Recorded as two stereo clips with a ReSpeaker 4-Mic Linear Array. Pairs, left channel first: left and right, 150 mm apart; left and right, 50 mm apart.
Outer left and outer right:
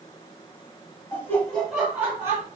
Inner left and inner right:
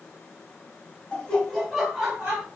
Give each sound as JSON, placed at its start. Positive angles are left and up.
{"t": 1.1, "sound": "laughter", "side_deg": 20, "distance_m": 1.0}